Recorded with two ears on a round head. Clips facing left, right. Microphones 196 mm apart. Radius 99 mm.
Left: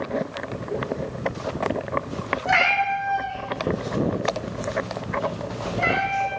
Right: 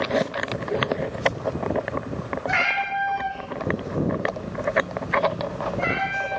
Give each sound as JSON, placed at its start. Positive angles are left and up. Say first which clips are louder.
{"t": 2.5, "sound": "a cat meowing", "louder": "left 8 dB", "side_deg": 80, "distance_m": 1.2}